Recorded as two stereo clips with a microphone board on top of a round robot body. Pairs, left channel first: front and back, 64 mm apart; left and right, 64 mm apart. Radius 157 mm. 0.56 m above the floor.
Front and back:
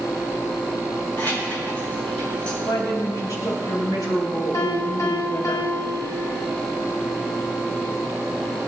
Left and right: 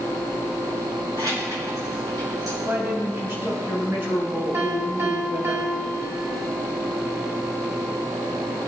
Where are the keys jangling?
55° right, 6.5 m; by 2.5 s 70° right, 6 m.